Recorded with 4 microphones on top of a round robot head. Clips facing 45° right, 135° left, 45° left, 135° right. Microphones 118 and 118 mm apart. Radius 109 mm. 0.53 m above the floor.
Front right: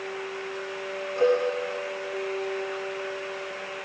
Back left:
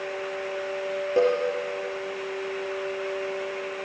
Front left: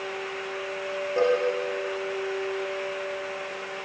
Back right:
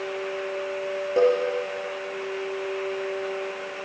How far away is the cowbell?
About 6 m.